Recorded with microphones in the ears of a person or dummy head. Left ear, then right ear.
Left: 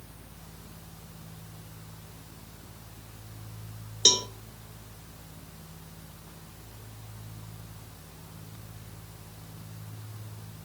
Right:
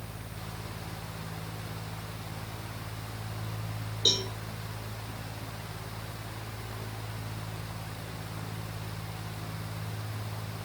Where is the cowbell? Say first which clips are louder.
Left 4 dB; 65° left (ahead or behind), 0.7 m.